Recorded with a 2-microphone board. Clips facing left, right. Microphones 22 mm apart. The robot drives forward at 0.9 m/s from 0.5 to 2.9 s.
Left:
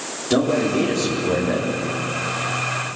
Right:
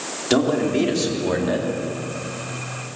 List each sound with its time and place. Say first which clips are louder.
0.3 s a man speaking: even; 20° right (ahead or behind), 4.5 m; by 1.7 s 30° right (ahead or behind), 3.5 m